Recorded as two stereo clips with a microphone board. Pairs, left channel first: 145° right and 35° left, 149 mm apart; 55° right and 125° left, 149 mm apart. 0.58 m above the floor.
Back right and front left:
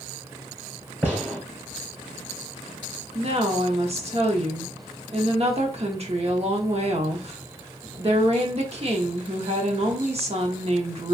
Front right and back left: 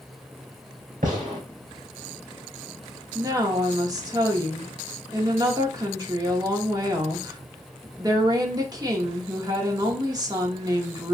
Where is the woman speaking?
65° left, 0.9 m.